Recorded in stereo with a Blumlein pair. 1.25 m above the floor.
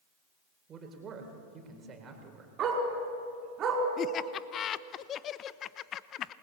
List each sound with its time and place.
0.7 s a man speaking: 25° right, 4 m
2.6 s a dog barking: 30° right, 4.5 m
4.0 s laughter: 30° left, 0.8 m